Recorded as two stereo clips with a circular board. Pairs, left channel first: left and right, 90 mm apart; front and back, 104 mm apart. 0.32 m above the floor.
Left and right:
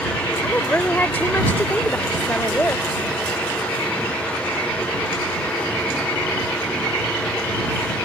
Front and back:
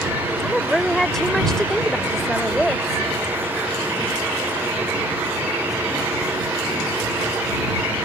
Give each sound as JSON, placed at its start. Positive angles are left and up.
{"t": 0.4, "sound": "a woman speaking", "azimuth_deg": 75}